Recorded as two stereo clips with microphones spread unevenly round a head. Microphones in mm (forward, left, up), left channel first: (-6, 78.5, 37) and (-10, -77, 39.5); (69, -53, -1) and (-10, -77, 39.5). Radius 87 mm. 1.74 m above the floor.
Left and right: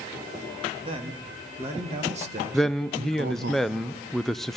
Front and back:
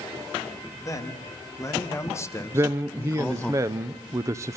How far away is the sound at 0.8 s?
About 4 m.